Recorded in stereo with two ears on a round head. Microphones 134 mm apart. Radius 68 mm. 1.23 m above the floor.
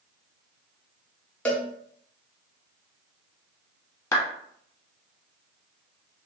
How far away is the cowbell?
About 0.6 m.